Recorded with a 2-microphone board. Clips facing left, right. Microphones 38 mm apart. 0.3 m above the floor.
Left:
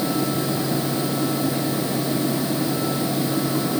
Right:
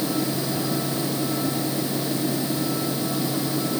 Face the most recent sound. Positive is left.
No sound to turn to.